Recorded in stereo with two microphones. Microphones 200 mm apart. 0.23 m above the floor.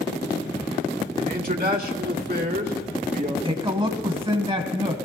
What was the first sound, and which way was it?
A man speaking, 45° right (ahead or behind).